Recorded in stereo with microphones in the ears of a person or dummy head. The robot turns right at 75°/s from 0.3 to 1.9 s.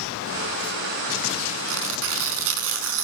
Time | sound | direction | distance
1.7 | tearing paper | 75° right (ahead or behind) | 5 m